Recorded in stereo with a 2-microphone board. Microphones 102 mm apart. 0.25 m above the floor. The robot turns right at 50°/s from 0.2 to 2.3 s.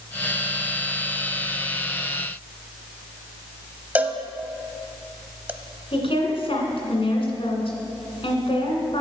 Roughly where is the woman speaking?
Left.